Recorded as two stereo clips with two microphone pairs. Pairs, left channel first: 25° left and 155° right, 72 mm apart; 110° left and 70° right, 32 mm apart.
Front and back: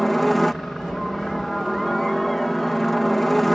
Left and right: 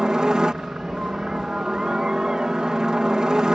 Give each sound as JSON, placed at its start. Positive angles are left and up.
{"t": 0.0, "sound": "a helicopter", "azimuth_deg": -60}